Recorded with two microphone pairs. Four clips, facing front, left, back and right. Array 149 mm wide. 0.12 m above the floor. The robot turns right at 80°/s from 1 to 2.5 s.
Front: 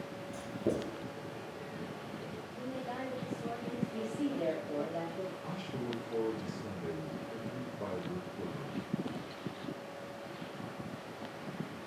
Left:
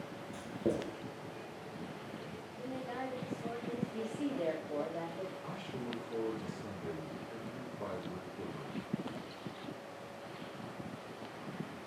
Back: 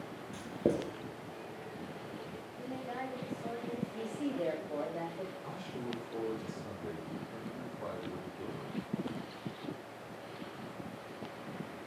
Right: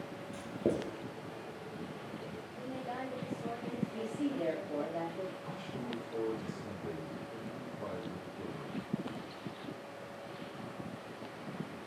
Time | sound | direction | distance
0.3 | writing | 155° right | 2.5 m
2.6 | a woman speaking | 40° right | 4.5 m
3.9 | a woman speaking | 40° right | 4.5 m
5.4 | a man speaking | 30° left | 3 m